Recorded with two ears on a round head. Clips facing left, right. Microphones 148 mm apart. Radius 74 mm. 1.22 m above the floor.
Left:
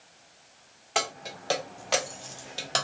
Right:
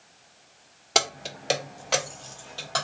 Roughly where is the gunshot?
I don't hear a gunshot.